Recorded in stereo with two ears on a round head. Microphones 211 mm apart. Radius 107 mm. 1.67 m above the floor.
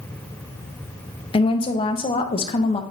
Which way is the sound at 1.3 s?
20° left (ahead or behind).